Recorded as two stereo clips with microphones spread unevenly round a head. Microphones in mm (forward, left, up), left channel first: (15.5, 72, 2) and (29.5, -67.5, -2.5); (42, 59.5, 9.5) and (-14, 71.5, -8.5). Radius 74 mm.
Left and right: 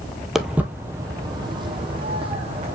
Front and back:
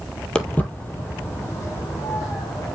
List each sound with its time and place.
0.3 s footsteps: 5° left, 1.0 m; by 2.7 s 40° right, 2.5 m